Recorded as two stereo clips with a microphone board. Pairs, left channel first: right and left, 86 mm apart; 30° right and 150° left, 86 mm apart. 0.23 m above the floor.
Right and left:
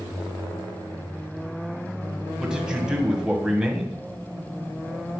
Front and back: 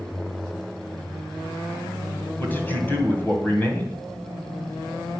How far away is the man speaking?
About 1.6 m.